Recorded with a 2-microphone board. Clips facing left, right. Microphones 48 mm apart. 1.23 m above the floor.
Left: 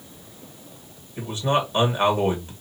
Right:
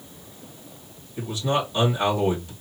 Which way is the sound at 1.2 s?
35° left (ahead or behind).